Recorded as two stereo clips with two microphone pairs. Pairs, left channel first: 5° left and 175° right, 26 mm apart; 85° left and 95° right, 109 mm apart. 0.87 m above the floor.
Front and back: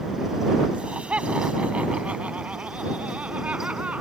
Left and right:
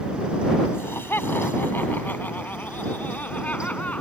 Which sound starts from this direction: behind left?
Laughter, at 0.7 s.